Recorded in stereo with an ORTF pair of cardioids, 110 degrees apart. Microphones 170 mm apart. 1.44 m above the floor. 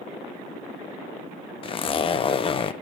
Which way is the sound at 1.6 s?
35° left.